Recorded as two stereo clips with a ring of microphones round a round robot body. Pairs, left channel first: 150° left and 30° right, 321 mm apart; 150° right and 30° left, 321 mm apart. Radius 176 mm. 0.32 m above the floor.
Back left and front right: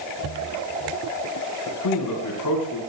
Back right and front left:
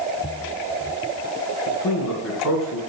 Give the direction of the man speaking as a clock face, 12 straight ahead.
6 o'clock.